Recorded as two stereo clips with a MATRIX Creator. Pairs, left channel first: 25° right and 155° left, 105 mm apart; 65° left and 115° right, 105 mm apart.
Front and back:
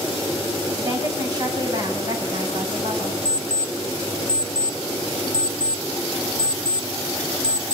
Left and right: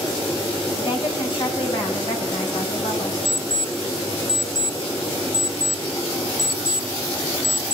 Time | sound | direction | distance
0.8 | a woman speaking | 105° left | 5.5 m
3.2 | an alarm clock | 130° right | 0.7 m